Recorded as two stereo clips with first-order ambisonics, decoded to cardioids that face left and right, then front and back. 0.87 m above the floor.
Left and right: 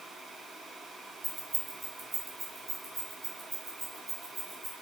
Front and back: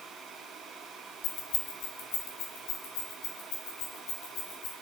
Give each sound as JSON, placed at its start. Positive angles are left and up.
{"t": 1.2, "sound": "keys jangling", "azimuth_deg": -15, "distance_m": 1.4}